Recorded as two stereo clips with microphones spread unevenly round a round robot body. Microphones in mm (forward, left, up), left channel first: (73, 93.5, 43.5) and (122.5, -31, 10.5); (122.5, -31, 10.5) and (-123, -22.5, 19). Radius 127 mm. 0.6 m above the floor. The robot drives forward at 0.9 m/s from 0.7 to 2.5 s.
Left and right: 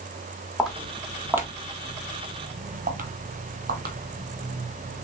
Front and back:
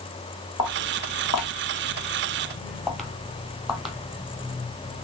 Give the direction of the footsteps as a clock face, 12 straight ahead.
11 o'clock.